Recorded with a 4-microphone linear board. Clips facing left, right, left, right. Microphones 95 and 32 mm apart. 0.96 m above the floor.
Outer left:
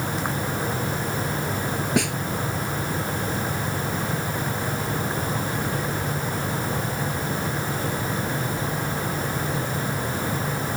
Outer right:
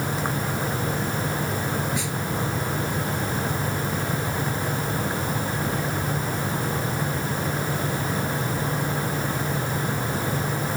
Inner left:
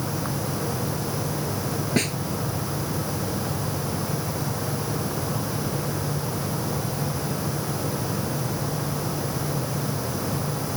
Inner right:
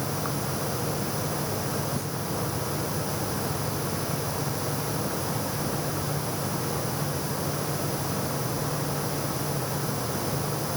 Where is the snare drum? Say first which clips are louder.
Outer left 6 dB, inner left 8 dB; 80° left.